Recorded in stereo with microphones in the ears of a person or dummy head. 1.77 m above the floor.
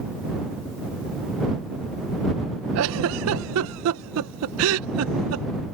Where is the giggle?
80° right.